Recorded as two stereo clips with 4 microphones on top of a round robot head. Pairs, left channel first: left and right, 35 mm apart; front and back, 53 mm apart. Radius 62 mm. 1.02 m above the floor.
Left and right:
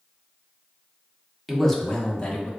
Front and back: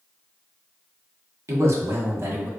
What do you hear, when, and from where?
1.5 s a man speaking: 175° left, 1.0 m; by 2.5 s 140° left, 1.1 m